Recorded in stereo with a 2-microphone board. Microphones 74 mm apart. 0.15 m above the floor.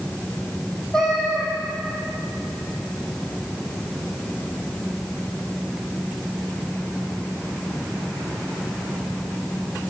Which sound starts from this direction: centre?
A cat meowing, at 0.9 s.